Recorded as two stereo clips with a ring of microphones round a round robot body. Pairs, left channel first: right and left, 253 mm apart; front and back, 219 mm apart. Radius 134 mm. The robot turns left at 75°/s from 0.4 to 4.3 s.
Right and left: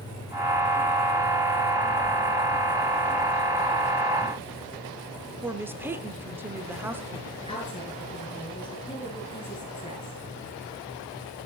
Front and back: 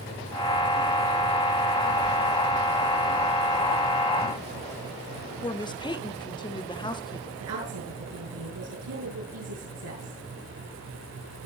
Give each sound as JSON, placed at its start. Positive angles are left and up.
{"t": 5.4, "sound": "a woman speaking", "azimuth_deg": 20, "distance_m": 1.0}
{"t": 7.4, "sound": "a woman speaking", "azimuth_deg": -160, "distance_m": 7.0}